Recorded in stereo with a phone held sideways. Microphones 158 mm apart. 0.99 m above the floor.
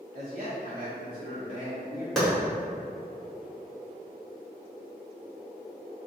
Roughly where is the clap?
Centre.